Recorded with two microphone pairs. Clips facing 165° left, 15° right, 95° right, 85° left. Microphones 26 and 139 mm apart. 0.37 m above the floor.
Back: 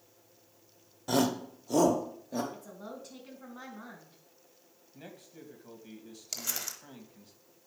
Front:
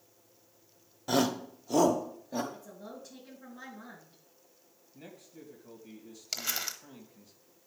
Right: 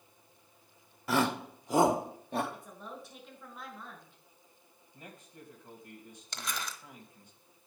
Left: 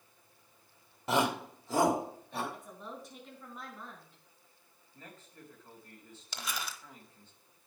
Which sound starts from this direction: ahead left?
A shout, at 1.1 s.